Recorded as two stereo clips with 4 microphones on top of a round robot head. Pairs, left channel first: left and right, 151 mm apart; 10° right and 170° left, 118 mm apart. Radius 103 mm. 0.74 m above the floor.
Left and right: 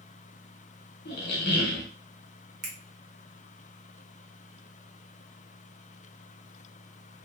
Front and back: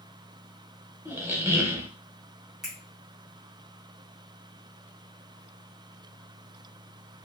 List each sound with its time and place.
1.1 s a squeak: 100° left, 0.8 m
2.6 s a finger snap: 105° right, 1.1 m